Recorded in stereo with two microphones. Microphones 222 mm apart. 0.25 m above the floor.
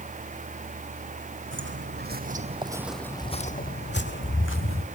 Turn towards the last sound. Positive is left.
turn(degrees=70)  # may be behind; listen again after turning